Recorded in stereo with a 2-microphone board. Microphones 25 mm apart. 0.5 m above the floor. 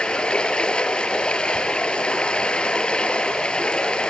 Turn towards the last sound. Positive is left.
turn(degrees=35)  # may be behind; listen again after turning